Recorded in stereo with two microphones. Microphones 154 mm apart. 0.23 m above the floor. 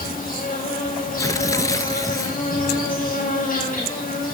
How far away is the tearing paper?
About 0.6 m.